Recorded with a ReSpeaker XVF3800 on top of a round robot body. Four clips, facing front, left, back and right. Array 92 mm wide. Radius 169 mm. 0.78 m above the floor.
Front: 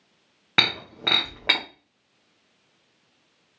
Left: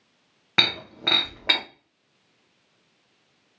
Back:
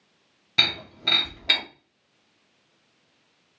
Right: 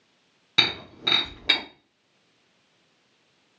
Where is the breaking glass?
35° left, 0.7 m.